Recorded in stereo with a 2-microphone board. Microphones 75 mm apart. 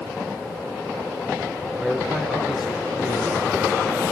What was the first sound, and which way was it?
A man speaking, 10° right (ahead or behind).